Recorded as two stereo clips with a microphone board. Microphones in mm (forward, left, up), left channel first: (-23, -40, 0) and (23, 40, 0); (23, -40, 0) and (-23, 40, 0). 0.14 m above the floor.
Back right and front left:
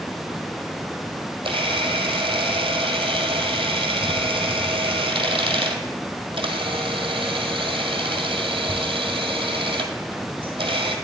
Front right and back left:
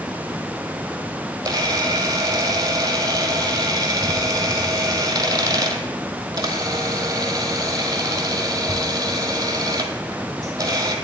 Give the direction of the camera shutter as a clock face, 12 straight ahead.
9 o'clock.